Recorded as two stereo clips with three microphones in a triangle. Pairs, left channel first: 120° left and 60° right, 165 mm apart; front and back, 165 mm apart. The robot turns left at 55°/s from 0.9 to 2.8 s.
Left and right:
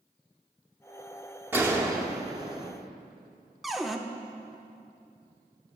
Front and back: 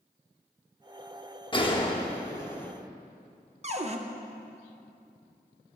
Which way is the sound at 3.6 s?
150° right.